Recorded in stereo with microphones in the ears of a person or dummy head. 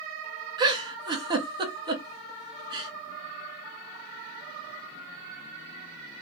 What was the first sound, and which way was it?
A giggle, 20° right (ahead or behind).